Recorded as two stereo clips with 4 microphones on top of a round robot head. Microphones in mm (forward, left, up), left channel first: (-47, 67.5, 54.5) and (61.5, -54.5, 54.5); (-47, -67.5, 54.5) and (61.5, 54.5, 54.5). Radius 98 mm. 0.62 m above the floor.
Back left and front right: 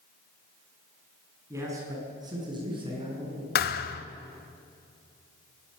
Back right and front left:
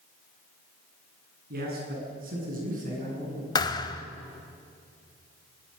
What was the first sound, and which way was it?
A man speaking, 25° left.